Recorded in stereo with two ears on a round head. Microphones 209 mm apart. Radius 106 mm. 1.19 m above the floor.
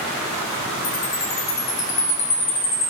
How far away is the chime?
About 2.0 m.